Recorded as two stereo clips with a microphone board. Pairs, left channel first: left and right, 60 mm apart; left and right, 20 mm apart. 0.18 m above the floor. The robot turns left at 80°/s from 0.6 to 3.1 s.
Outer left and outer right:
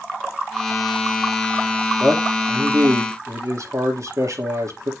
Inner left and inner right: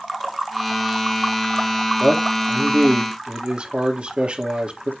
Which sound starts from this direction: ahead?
A man speaking, at 2.0 s.